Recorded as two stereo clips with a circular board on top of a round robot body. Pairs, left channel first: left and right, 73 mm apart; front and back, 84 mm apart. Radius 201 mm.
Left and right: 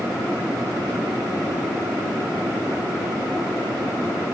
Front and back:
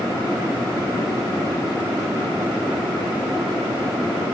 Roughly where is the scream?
No scream in this recording.